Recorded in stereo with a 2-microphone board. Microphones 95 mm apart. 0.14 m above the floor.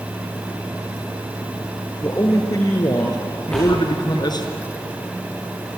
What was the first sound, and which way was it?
A man speaking, 35° left (ahead or behind).